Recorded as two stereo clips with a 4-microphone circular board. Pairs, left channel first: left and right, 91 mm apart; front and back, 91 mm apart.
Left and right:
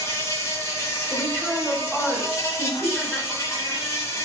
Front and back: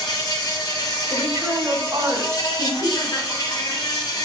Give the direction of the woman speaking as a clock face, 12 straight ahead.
7 o'clock.